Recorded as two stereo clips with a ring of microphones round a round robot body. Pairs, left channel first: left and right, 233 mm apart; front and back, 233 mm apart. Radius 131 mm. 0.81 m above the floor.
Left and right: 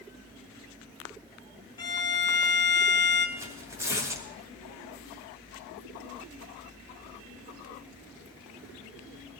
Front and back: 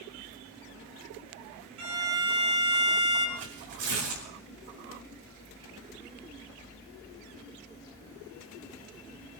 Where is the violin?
165° left, 7 m.